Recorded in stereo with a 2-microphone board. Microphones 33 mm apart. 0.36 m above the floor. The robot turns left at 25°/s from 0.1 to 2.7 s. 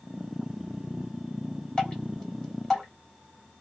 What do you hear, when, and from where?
1.8 s dripping: 30° left (ahead or behind), 1.8 m; by 2.9 s 15° left (ahead or behind), 1.8 m